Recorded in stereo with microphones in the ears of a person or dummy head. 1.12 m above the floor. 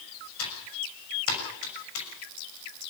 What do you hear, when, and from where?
0.4 s typing on a keyboard: 75° left (ahead or behind), 6.5 m